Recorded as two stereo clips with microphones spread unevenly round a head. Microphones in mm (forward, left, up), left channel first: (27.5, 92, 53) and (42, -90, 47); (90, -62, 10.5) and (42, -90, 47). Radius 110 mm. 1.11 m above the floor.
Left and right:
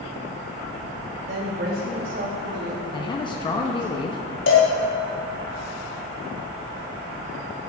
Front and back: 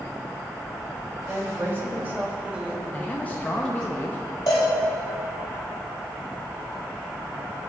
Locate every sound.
1.3 s a woman speaking: 90° right, 3.5 m; by 3.9 s 35° right, 2.5 m
2.9 s a man speaking: 30° left, 0.8 m
4.5 s a cowbell: 80° left, 3 m